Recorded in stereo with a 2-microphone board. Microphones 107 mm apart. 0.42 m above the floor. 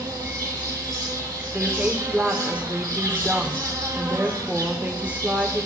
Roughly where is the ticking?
No ticking in this recording.